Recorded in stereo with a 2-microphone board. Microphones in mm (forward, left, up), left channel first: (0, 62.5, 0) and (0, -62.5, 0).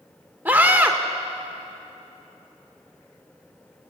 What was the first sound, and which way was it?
A scream, 15° right (ahead or behind).